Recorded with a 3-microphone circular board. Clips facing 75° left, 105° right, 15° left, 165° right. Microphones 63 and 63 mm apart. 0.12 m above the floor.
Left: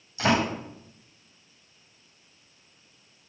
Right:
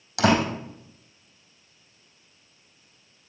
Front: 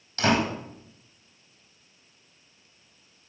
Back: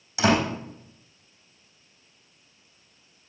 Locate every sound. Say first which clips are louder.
0.2 s a door slam: right 3 dB, back 2 dB; 85° right, 4 m